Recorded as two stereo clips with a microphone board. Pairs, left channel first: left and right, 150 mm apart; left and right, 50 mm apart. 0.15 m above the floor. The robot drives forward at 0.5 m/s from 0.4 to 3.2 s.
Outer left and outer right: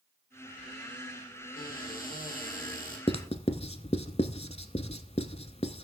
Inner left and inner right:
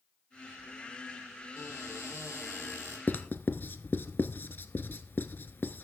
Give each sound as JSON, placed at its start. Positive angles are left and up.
{"t": 1.6, "sound": "a cupboard door", "side_deg": 65, "distance_m": 5.0}
{"t": 3.1, "sound": "writing", "side_deg": 40, "distance_m": 0.6}